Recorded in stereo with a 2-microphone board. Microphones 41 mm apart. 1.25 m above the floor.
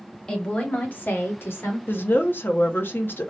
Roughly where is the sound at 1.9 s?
Left.